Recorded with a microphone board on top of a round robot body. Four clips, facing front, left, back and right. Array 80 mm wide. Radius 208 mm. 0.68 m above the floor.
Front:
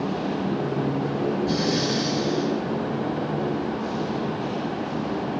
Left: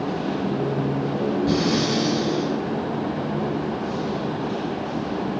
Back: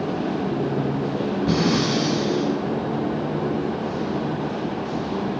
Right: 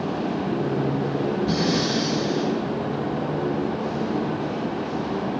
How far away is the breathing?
About 1.6 m.